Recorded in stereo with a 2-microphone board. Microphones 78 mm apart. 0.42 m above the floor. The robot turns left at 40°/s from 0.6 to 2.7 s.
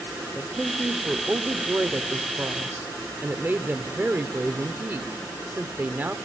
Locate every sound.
0.3 s a woman speaking: 10° right (ahead or behind), 0.8 m; by 6.2 s 25° right (ahead or behind), 0.8 m